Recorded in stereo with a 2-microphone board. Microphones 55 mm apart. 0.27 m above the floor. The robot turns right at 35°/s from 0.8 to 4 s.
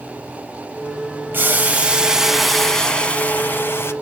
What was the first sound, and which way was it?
Boiling, 40° right.